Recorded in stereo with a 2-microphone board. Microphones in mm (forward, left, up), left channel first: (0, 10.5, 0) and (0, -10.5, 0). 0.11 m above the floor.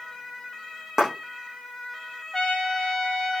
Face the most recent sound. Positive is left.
turn(degrees=20)  # may be behind; listen again after turning